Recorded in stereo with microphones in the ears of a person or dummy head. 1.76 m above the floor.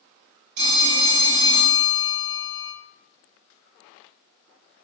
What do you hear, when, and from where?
0.6 s a phone ringing: 45° right (ahead or behind), 2.0 m